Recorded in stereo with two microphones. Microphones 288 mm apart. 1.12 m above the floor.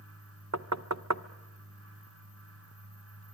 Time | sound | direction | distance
0.5 | knocking | 65° right (ahead or behind) | 0.7 m